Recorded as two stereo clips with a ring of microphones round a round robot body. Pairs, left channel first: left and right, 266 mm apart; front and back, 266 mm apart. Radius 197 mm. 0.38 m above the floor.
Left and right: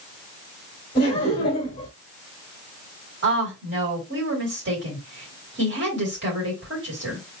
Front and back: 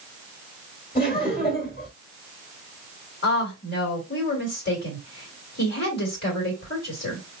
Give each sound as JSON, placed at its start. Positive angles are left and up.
{"t": 0.9, "sound": "laughter", "azimuth_deg": 40, "distance_m": 1.5}
{"t": 3.2, "sound": "a woman speaking", "azimuth_deg": -50, "distance_m": 2.5}